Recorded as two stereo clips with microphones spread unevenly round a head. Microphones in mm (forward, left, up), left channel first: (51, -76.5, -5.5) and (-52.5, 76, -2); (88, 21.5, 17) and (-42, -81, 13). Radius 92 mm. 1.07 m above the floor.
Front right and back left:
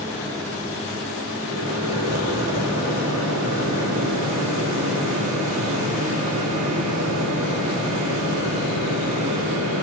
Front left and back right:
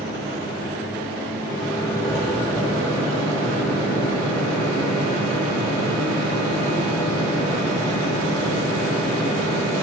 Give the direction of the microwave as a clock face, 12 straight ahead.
8 o'clock.